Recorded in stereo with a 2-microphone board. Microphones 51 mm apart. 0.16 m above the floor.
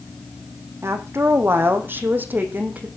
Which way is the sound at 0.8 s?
55° right (ahead or behind).